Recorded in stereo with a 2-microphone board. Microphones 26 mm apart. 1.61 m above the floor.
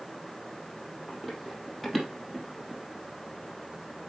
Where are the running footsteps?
5° right (ahead or behind), 3.5 m; by 2.8 s 15° right (ahead or behind), 2.5 m.